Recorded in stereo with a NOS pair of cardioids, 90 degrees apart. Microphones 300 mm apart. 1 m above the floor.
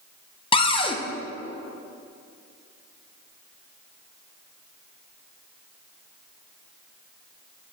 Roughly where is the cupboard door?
Ahead.